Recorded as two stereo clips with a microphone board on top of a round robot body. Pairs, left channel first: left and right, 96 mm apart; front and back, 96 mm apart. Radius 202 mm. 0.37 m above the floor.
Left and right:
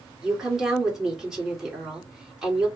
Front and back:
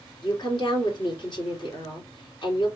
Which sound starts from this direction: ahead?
A woman speaking, at 0.2 s.